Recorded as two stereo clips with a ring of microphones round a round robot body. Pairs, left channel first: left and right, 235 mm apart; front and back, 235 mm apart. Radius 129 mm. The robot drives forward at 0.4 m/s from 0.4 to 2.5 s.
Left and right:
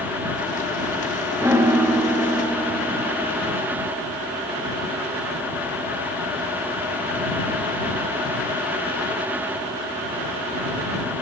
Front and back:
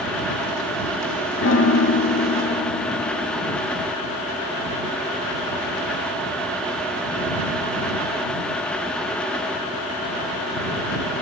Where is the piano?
10° right, 1.6 m; by 3.6 s 20° right, 1.3 m.